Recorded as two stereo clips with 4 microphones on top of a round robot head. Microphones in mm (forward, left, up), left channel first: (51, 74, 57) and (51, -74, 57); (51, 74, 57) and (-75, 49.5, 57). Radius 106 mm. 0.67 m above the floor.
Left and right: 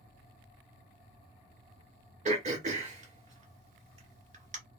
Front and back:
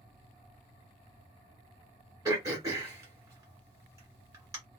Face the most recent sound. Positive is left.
turn(degrees=-115)